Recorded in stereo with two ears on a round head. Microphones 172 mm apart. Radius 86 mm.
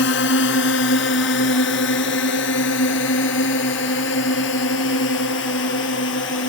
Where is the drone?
65° left (ahead or behind).